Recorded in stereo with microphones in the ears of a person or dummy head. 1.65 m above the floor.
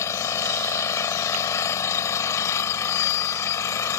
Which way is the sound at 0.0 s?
15° left (ahead or behind).